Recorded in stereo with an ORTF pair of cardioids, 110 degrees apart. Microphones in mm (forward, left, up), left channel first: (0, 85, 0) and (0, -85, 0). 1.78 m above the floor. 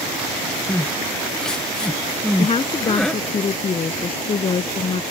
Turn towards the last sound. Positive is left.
turn(degrees=35)